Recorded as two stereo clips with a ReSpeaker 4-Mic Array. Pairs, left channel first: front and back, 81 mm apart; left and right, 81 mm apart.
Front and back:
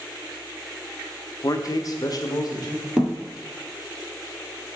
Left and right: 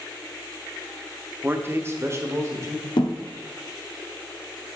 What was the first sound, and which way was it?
A man speaking, 30° right.